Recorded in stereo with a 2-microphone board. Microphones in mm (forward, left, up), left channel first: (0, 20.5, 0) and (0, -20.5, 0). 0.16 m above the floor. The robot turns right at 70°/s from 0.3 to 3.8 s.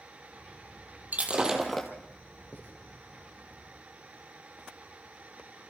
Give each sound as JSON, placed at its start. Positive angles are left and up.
{"t": 1.1, "sound": "breaking glass", "azimuth_deg": -40, "distance_m": 2.5}
{"t": 2.5, "sound": "writing", "side_deg": 45, "distance_m": 6.0}